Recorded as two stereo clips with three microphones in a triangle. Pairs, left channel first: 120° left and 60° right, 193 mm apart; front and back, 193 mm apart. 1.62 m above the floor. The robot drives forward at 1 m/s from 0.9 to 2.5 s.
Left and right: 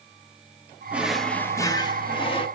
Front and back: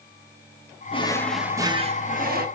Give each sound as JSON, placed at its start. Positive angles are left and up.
{"t": 0.9, "sound": "a drawer", "azimuth_deg": 15, "distance_m": 0.9}